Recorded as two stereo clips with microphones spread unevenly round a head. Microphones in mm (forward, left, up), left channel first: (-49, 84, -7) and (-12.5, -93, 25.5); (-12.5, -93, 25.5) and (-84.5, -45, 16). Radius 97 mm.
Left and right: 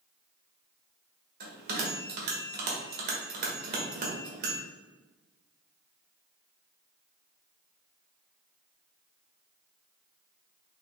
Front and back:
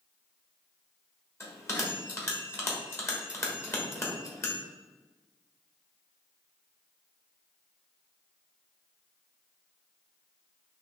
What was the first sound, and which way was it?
A bell, 85° right.